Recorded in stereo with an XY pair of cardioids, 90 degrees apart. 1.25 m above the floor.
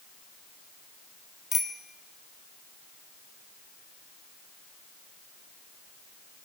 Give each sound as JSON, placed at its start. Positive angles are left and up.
{"t": 1.5, "sound": "a bicycle bell", "azimuth_deg": 50, "distance_m": 3.5}